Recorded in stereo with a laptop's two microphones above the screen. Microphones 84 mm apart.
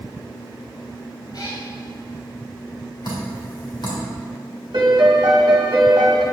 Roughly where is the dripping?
Left.